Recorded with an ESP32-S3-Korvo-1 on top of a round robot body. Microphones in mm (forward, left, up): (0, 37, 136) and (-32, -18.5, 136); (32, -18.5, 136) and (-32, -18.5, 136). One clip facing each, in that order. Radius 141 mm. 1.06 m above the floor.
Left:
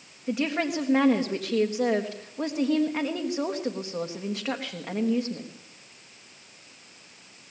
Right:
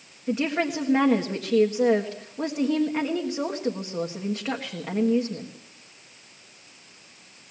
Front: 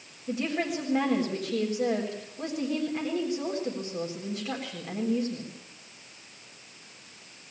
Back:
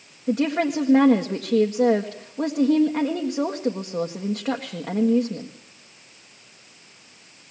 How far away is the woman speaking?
About 1.7 m.